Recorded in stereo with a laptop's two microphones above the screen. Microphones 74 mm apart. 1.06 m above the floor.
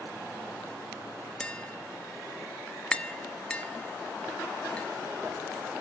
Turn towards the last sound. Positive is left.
turn(degrees=15)  # may be behind; listen again after turning